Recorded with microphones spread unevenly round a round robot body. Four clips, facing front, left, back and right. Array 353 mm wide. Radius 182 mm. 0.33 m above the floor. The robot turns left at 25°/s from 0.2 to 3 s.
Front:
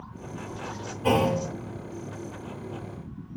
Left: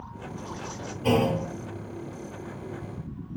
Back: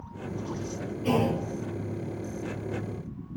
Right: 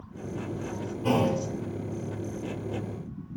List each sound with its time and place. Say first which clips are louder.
1.0 s a clunk: left 2 dB, front 3 dB; 10° left, 0.7 m; by 1.4 s straight ahead, 0.7 m